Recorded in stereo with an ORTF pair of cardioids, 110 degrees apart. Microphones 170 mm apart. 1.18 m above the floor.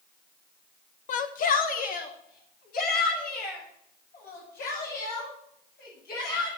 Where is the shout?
50° left, 0.8 m; by 6.5 s 65° left, 8.5 m.